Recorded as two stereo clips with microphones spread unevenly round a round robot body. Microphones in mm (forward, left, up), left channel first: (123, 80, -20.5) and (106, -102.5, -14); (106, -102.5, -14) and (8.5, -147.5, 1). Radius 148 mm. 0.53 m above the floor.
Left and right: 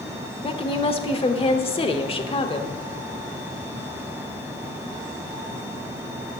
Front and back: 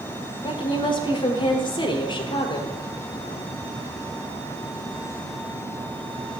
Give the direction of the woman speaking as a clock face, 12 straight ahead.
11 o'clock.